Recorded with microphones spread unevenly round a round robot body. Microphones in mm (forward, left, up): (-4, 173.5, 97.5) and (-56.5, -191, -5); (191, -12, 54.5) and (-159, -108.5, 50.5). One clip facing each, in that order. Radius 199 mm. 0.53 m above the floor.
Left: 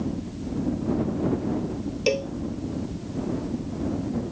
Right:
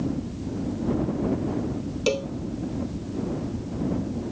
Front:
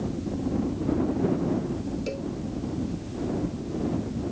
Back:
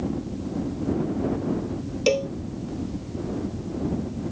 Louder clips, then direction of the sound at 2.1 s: Left 1 dB, back 8 dB; 175° left.